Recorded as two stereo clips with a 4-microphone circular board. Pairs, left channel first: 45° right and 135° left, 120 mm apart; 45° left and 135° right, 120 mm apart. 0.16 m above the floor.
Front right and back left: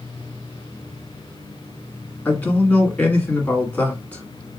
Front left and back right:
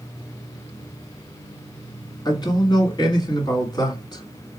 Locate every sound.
2.2 s a man speaking: 25° left, 1.7 m